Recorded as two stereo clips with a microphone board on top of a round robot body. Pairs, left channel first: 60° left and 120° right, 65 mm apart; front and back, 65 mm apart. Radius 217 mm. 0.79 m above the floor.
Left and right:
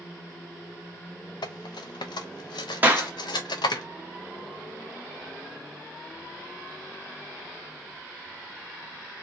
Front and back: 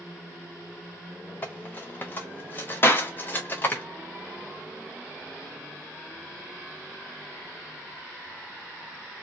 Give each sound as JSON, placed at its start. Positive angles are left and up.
{"t": 1.4, "sound": "cutlery clinking", "azimuth_deg": 60, "distance_m": 0.5}
{"t": 2.8, "sound": "a clap", "azimuth_deg": -55, "distance_m": 0.9}